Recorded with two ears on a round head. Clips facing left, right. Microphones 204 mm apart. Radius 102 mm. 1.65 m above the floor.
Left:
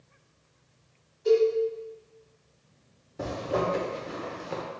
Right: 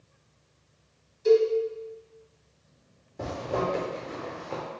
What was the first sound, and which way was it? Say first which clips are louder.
A cowbell: right 1 dB; 60° right (ahead or behind).